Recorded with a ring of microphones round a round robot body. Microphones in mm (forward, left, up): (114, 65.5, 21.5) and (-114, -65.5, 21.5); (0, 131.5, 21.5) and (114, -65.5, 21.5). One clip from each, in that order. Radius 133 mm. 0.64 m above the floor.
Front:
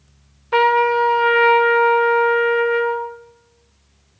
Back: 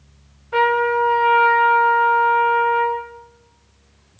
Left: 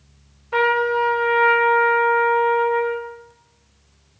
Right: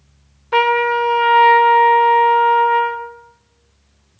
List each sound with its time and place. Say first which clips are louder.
0.5 s a trumpet: front 2 dB, right 4 dB; 15° right, 0.6 m